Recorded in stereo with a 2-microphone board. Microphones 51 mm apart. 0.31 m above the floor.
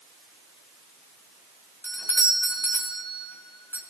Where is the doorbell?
50° left (ahead or behind), 2.5 m.